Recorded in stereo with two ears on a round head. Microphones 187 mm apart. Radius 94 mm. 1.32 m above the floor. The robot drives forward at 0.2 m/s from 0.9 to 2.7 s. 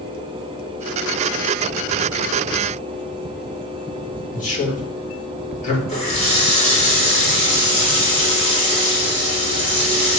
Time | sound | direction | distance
4.3 | a man speaking | 35° left (ahead or behind) | 2.5 m
5.9 | a running tap | 30° left (ahead or behind) | 3 m